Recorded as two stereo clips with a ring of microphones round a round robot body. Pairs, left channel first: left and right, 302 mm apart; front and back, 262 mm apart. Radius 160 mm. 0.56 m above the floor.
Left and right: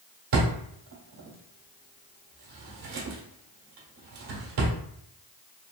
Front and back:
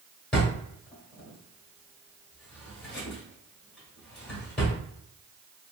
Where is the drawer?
85° right, 1.2 m.